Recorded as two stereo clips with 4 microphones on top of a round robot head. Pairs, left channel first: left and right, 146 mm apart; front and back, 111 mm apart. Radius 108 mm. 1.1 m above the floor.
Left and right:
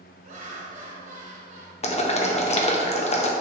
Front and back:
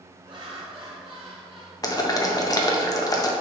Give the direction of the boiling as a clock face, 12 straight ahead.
10 o'clock.